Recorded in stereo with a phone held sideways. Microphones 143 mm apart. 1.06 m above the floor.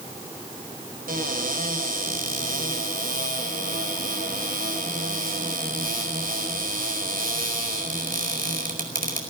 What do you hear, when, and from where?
1.1 s a cupboard door: 85° right, 5 m